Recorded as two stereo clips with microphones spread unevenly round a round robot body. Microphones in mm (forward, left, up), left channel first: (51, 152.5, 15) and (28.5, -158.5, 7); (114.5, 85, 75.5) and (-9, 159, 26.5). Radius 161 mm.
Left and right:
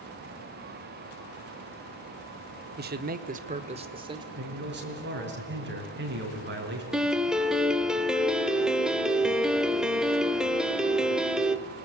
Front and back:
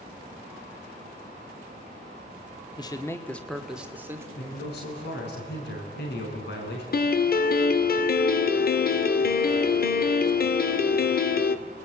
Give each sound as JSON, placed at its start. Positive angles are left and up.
{"t": 2.8, "sound": "a man speaking", "azimuth_deg": -100, "distance_m": 1.2}
{"t": 4.4, "sound": "a man speaking", "azimuth_deg": -35, "distance_m": 5.5}
{"t": 6.9, "sound": "a piano", "azimuth_deg": -5, "distance_m": 1.2}